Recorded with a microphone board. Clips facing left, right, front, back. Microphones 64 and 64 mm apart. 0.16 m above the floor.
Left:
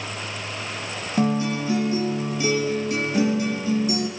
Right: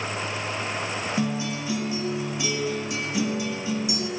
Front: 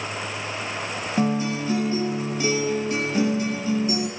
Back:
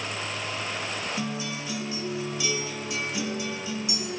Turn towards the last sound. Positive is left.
turn(degrees=45)